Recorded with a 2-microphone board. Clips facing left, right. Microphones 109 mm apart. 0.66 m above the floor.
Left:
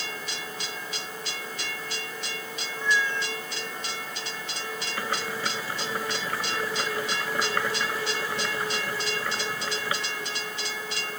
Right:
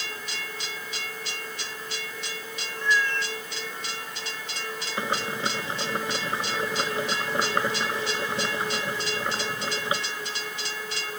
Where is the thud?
No thud in this recording.